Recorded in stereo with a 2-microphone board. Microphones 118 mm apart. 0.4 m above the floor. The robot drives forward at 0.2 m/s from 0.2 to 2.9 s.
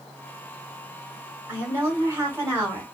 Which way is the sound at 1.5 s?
20° right (ahead or behind).